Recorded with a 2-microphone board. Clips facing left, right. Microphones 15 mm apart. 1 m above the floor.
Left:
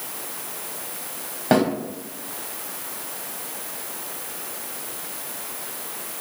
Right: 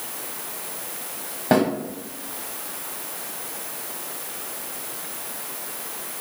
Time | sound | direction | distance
1.5 | a snare drum | 15° left (ahead or behind) | 1.1 m